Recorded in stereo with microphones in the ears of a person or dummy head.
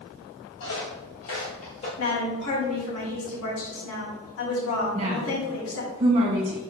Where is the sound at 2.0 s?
75° left (ahead or behind), 3 m.